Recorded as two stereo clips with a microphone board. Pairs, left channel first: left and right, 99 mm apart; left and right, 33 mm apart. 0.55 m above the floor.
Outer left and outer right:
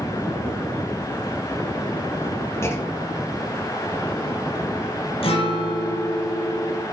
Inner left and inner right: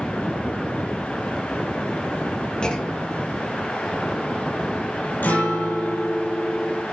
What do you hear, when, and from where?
2.6 s a clunk: 25° left (ahead or behind), 2 m
5.2 s a guitar: 70° left (ahead or behind), 4.5 m